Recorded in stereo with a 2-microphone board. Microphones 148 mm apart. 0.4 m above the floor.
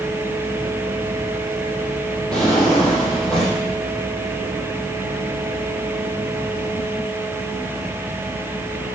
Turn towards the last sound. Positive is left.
turn(degrees=5)  # may be behind; listen again after turning